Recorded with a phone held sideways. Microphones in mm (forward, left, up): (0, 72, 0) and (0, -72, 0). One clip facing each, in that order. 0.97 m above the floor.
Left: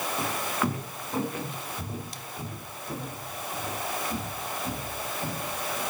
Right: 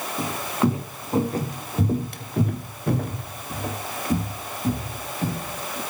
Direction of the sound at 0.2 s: 20° right (ahead or behind).